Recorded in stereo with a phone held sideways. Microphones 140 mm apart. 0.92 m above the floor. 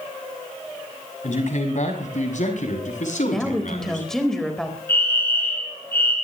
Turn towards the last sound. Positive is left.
turn(degrees=15)  # may be behind; listen again after turning